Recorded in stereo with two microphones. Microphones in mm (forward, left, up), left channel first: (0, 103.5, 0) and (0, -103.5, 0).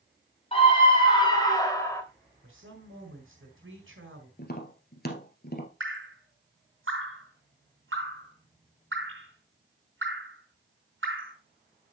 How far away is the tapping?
About 1.8 m.